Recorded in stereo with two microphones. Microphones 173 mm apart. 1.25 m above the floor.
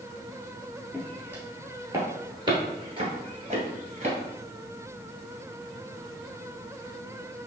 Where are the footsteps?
10° right (ahead or behind), 1.8 m; by 4.2 s 40° right (ahead or behind), 1.6 m.